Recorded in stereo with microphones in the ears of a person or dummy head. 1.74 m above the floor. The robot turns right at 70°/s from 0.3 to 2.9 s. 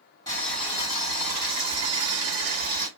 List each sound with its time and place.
0.3 s boiling: 160° left, 1.4 m; by 2.9 s 20° right, 1.4 m